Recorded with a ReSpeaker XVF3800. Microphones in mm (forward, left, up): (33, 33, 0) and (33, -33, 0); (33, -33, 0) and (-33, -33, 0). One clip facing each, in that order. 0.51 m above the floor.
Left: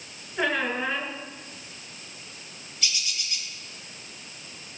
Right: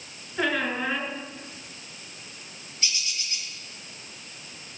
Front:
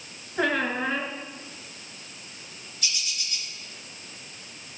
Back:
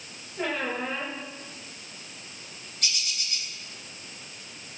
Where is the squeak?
Straight ahead, 2.5 m.